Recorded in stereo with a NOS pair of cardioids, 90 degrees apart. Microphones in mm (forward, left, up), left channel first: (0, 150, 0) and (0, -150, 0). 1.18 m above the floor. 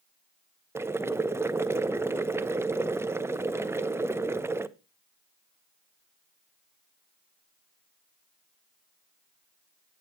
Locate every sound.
0.8 s boiling: 10° right, 0.7 m